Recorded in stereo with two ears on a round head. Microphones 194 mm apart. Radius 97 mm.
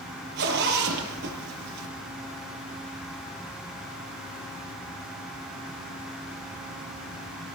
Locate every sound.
0.4 s a zipper: 50° right (ahead or behind), 6 m